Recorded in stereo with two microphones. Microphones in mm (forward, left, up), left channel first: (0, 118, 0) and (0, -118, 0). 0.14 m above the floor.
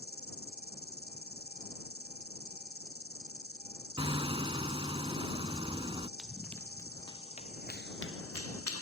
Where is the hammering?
20° right (ahead or behind).